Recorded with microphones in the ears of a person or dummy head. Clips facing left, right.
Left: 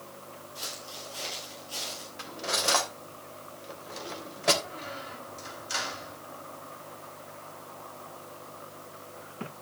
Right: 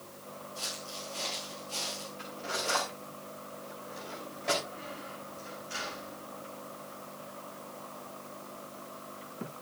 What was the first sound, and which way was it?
Footsteps, 15° left (ahead or behind).